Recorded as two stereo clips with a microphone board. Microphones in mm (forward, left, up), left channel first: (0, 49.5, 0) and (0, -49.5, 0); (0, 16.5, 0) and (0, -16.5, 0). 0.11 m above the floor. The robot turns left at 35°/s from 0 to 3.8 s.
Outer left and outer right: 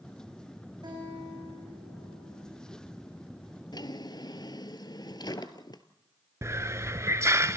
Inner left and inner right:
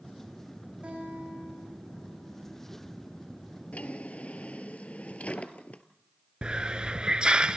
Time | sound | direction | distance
0.8 | a guitar | 50° right | 8 m
3.7 | a drawer | 50° left (ahead or behind) | 1.2 m
6.4 | a hiss | 30° right (ahead or behind) | 0.6 m